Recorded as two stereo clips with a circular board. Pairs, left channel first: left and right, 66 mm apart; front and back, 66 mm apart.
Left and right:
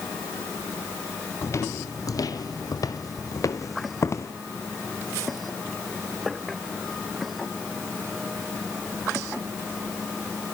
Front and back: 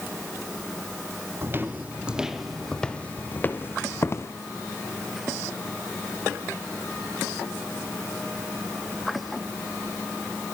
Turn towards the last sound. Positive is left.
turn(degrees=45)